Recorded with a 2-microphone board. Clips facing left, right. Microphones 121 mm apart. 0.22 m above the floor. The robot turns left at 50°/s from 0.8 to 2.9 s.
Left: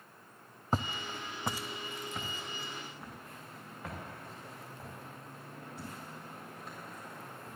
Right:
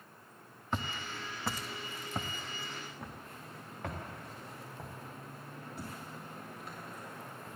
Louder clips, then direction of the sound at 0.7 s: Left 3 dB; 40° left (ahead or behind).